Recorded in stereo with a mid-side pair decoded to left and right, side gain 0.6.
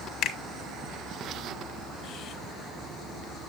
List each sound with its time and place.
0.2 s a finger snap: 65° left, 1.1 m